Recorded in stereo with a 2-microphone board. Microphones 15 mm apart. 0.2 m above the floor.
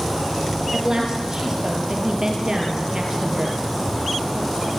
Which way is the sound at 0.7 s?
50° right (ahead or behind).